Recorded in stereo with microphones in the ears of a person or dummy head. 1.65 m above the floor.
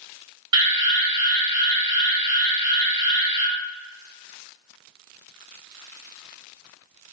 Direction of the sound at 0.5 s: 30° right (ahead or behind).